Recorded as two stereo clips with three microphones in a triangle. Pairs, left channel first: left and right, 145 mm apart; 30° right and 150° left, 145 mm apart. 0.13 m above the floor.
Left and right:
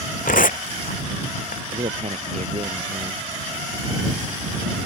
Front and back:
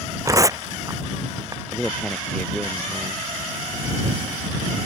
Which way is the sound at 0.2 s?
85° left.